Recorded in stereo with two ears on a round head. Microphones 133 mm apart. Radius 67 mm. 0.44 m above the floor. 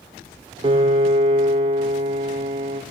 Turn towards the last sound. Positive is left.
turn(degrees=-40)  # may be behind; listen again after turning